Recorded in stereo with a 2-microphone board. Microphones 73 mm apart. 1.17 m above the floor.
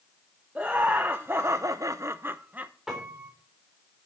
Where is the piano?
10° right (ahead or behind), 4 m.